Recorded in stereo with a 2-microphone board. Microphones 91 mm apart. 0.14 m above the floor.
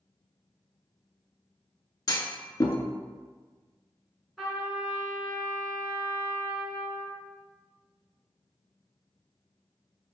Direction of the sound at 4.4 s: 5° right (ahead or behind).